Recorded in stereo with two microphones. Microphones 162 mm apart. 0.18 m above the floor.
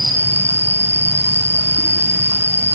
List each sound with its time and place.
0.0 s an insect: 15° right (ahead or behind), 2.5 m